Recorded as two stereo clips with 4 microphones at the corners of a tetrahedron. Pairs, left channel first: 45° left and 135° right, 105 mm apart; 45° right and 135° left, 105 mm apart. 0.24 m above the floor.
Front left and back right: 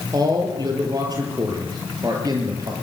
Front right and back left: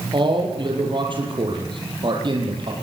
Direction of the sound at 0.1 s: 175° left.